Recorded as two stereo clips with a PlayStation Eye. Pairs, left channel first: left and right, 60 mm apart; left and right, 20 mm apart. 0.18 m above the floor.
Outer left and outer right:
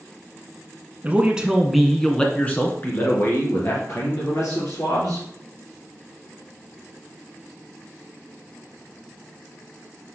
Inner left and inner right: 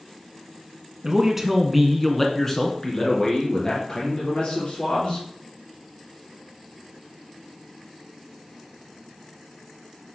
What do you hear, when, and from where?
1.0 s a man speaking: 25° right (ahead or behind), 1.5 m; by 5.2 s 60° left (ahead or behind), 3.5 m